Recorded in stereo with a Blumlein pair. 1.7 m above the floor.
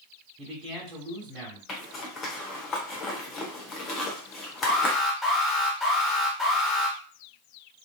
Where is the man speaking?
25° right, 1.2 m.